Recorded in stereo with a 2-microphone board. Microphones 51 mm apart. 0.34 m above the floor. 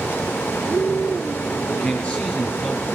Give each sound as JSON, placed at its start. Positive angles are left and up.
{"t": 1.7, "sound": "a man speaking", "side_deg": 20, "distance_m": 6.0}